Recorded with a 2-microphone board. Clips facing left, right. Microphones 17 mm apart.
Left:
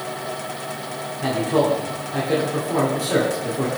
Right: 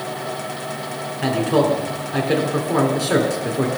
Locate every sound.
1.2 s a man speaking: 40° right (ahead or behind), 2.5 m